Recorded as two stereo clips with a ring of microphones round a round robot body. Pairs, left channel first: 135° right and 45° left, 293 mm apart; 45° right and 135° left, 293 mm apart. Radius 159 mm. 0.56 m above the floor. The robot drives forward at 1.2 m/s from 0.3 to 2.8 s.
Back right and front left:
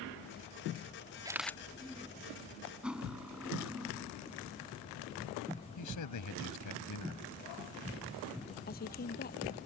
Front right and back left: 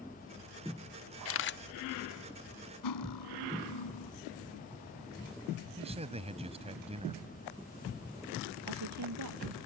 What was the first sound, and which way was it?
A camera shutter, 30° right.